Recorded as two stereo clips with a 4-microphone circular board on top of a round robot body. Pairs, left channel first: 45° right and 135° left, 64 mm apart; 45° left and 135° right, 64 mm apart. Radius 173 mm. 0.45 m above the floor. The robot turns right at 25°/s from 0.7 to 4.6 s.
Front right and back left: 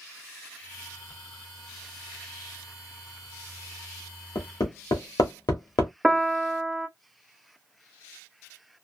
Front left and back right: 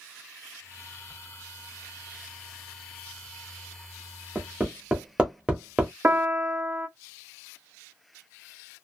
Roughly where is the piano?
Behind right.